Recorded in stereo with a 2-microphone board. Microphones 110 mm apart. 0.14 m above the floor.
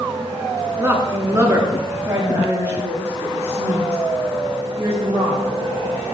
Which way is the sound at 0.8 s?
20° right (ahead or behind).